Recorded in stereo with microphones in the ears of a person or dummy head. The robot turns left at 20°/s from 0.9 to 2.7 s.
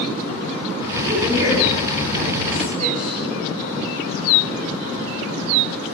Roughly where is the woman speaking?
Right.